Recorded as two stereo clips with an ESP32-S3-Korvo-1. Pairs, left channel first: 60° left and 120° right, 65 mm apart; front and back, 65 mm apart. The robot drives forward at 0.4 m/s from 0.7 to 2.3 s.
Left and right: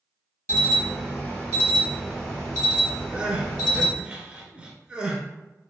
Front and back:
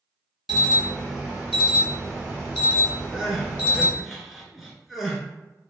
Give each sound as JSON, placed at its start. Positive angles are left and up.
{"t": 0.5, "sound": "an alarm", "azimuth_deg": 100, "distance_m": 1.1}
{"t": 3.1, "sound": "crying", "azimuth_deg": -100, "distance_m": 0.6}